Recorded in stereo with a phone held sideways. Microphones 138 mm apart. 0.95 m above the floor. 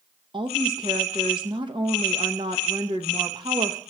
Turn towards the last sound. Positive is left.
turn(degrees=-35)  # may be behind; listen again after turning